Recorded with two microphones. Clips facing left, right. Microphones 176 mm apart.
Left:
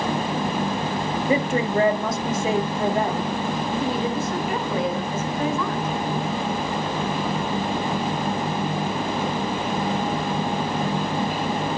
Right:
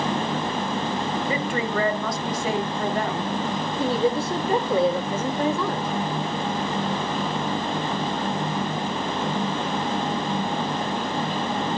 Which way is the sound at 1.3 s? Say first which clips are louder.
Left 4 dB; 25° left (ahead or behind).